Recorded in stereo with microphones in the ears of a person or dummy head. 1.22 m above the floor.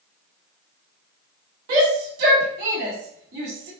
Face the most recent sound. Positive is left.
turn(degrees=-55)  # may be behind; listen again after turning